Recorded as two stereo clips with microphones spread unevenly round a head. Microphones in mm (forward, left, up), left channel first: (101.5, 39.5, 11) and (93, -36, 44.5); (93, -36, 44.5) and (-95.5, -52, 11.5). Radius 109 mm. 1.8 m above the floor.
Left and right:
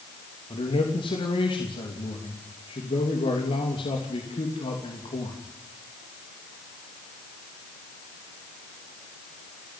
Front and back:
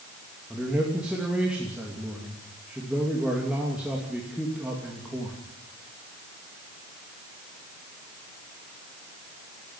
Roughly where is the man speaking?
Left.